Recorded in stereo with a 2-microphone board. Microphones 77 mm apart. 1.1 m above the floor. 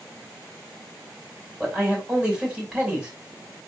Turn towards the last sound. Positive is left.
turn(degrees=-10)  # may be behind; listen again after turning